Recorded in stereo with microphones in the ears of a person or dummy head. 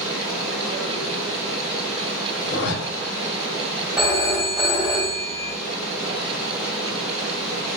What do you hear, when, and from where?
0.0 s running water: 5° right (ahead or behind), 1.0 m
2.4 s a zipper: 65° left (ahead or behind), 0.6 m
4.0 s a phone ringing: 30° right (ahead or behind), 2.0 m